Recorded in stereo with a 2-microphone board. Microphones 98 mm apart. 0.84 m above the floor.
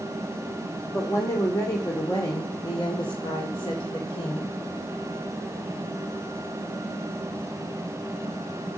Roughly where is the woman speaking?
Left.